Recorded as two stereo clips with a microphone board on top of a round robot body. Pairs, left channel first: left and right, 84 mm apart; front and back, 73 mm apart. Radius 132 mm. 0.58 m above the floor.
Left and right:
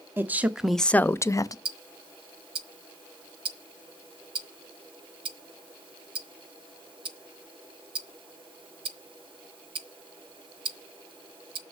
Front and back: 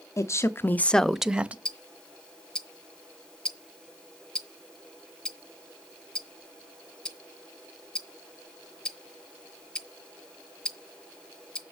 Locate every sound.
0.2 s a woman speaking: 35° right, 0.9 m; by 1.6 s 115° left, 0.9 m
1.6 s ticking: 80° right, 0.6 m